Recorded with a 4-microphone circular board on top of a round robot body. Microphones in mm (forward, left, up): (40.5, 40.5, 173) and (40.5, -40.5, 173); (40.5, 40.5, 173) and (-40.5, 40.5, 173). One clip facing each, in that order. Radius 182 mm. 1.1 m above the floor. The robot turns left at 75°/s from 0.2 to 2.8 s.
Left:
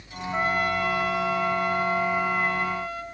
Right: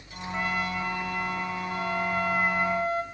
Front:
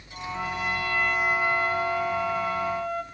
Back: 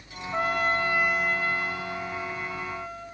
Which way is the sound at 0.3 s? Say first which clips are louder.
Left 5 dB, back 4 dB; 155° left.